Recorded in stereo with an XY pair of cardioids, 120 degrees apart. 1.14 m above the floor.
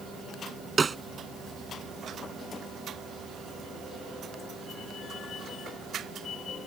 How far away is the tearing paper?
No tearing paper in this recording.